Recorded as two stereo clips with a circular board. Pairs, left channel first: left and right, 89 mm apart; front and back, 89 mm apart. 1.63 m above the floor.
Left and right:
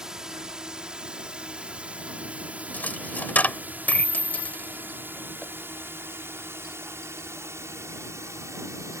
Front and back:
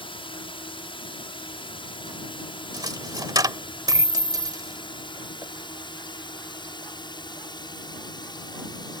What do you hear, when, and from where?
0.0 s a drone: 5° right; by 9.0 s 35° right
2.7 s a dropped coin: 155° left